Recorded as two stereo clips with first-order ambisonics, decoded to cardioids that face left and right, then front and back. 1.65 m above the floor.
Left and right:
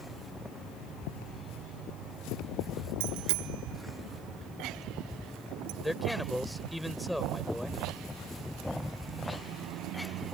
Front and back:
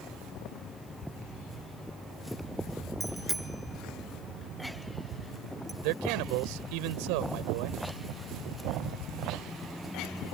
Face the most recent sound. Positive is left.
turn(degrees=180)